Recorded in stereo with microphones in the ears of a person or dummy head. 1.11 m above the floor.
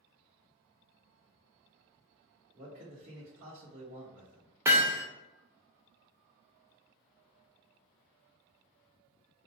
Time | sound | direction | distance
2.5 | a man speaking | 35° right (ahead or behind) | 1.3 m
4.7 | hammering | 10° right (ahead or behind) | 0.6 m